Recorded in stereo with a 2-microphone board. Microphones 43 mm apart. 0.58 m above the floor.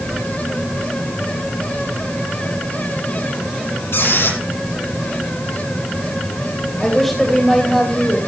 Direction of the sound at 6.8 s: 5° left (ahead or behind).